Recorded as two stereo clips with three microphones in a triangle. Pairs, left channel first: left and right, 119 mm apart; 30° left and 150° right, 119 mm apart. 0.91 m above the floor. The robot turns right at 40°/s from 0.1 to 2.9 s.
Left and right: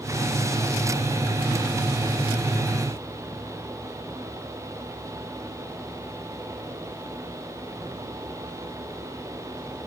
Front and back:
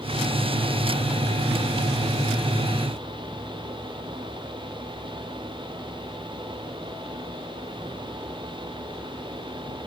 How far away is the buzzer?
I don't hear a buzzer.